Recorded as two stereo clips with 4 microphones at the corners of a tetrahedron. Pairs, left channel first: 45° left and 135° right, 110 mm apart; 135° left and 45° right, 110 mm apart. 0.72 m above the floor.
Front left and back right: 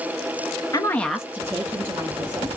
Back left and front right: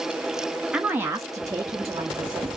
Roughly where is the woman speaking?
Ahead left.